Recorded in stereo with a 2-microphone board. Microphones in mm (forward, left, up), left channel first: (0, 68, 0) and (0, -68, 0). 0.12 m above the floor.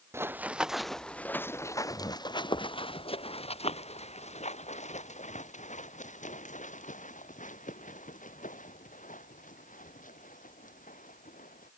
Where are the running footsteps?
20° right (ahead or behind); by 11.7 s 70° left (ahead or behind).